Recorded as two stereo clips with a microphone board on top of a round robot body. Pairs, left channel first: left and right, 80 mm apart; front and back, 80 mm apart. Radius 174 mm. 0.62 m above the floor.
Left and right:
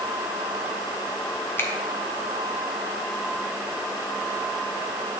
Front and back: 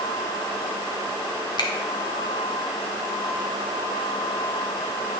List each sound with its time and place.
1.6 s a finger snap: 30° left, 1.5 m